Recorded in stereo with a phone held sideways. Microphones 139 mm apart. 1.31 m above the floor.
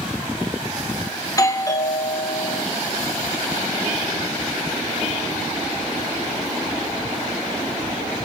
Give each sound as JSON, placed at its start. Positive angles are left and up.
{"t": 1.2, "sound": "a doorbell", "side_deg": 25, "distance_m": 1.0}